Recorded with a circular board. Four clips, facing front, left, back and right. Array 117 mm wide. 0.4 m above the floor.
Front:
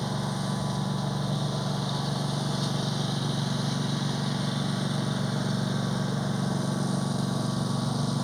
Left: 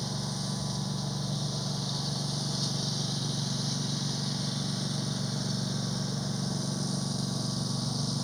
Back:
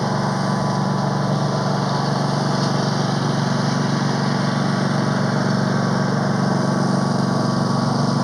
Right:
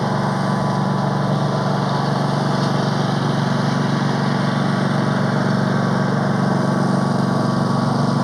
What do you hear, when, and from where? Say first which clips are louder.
0.0 s a lawn mower: right 17 dB, back 10 dB; 130° right